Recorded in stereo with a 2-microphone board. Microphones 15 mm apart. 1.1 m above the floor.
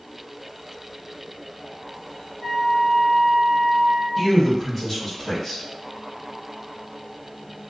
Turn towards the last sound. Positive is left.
turn(degrees=10)  # may be behind; listen again after turning